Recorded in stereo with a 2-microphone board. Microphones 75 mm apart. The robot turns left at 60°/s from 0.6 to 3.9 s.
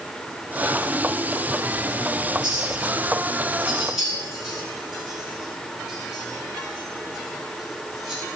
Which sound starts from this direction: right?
A clink, at 2.4 s.